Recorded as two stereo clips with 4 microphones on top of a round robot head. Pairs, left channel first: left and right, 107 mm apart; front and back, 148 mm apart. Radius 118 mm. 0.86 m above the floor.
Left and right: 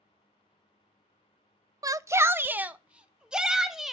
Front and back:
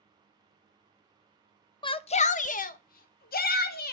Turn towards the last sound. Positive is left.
turn(degrees=-5)